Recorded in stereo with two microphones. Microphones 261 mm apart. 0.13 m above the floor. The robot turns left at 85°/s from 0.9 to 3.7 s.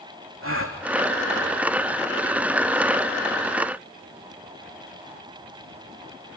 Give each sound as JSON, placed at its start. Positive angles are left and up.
{"t": 0.4, "sound": "a gasp", "side_deg": -60, "distance_m": 3.5}